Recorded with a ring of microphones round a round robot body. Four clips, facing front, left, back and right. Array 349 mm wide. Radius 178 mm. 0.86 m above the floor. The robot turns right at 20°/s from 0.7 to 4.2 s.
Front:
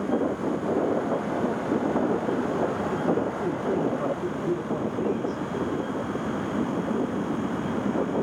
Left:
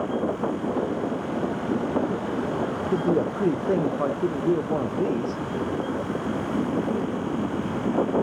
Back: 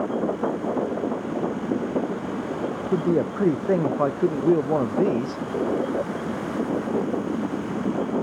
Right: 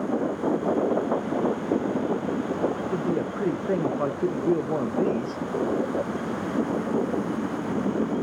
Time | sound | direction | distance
2.9 | a man speaking | 150° left | 0.6 m